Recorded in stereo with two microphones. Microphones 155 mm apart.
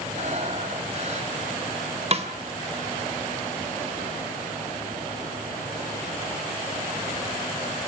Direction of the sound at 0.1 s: 50° right (ahead or behind).